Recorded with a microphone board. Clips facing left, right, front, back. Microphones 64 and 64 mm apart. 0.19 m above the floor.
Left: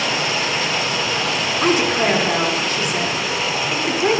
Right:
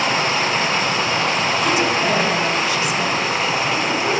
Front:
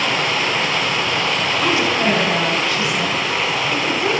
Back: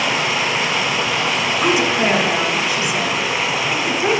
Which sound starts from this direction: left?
A woman speaking, at 1.6 s.